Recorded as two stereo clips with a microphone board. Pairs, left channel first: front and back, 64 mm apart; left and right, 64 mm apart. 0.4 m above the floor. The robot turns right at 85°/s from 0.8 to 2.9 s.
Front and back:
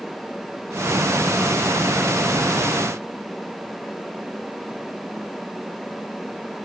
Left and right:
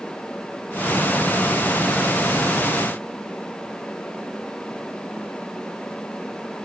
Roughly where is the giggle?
No giggle in this recording.